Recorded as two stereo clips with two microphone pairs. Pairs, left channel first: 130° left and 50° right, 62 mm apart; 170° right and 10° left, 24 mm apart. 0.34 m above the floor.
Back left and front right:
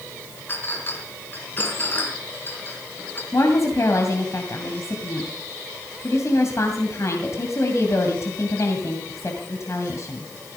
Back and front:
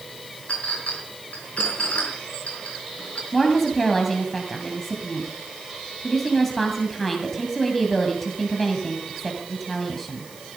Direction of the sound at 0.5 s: 175° right.